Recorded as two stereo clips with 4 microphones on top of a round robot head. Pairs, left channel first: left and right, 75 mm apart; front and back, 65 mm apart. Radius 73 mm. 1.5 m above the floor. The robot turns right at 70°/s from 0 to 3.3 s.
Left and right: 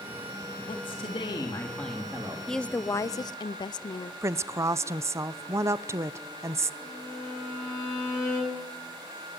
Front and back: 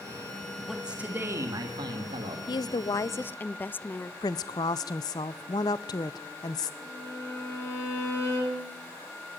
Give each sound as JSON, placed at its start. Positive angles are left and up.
{"t": 0.7, "sound": "a man speaking", "azimuth_deg": 90, "distance_m": 2.0}
{"t": 2.5, "sound": "a woman speaking", "azimuth_deg": 5, "distance_m": 0.6}
{"t": 4.2, "sound": "a woman speaking", "azimuth_deg": -40, "distance_m": 0.6}
{"t": 6.8, "sound": "a violin", "azimuth_deg": 45, "distance_m": 7.0}